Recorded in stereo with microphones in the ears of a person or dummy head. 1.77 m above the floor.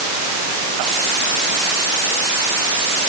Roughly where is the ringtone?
I don't hear a ringtone.